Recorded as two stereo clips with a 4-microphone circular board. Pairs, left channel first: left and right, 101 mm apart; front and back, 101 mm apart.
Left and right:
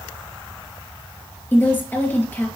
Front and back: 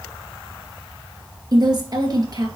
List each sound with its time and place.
1.5 s a woman speaking: 155° left, 1.9 m